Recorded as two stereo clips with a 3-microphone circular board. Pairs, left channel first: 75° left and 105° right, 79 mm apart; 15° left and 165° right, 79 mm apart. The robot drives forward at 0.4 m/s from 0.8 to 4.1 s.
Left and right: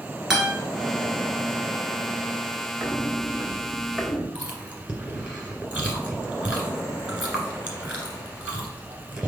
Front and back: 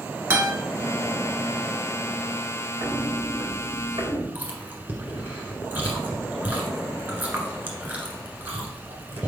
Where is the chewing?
150° right, 1.5 m.